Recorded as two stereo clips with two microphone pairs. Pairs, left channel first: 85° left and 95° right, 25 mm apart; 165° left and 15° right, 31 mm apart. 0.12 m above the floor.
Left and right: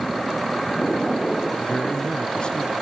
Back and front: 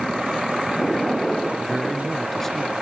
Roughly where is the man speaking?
Left.